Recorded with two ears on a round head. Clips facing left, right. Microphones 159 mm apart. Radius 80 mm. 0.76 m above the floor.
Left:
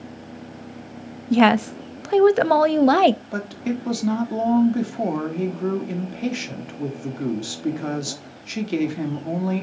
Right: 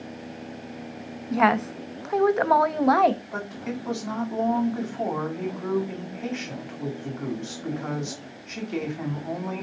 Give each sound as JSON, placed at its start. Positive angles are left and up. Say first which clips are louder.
{"t": 1.3, "sound": "a woman speaking", "louder": "left 6 dB", "side_deg": 35, "distance_m": 0.5}
{"t": 3.3, "sound": "a woman speaking", "louder": "left 6 dB", "side_deg": 35, "distance_m": 1.7}